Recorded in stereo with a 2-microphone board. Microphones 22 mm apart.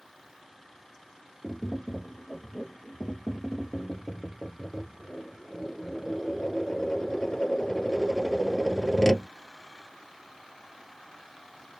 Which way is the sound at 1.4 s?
25° left (ahead or behind).